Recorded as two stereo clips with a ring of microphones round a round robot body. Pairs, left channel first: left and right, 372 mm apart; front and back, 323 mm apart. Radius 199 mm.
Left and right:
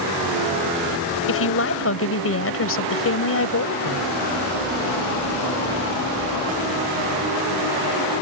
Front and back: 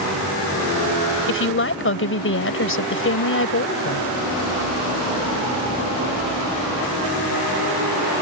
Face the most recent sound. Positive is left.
turn(degrees=45)